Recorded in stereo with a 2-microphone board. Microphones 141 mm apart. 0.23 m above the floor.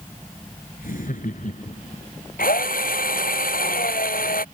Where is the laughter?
70° left (ahead or behind); by 2.0 s 60° left (ahead or behind).